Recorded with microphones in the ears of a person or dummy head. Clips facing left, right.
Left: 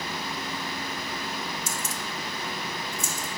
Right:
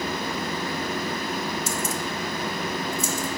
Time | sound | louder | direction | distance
1.7 | keys jangling | right 6 dB | 70° right (ahead or behind) | 1.1 m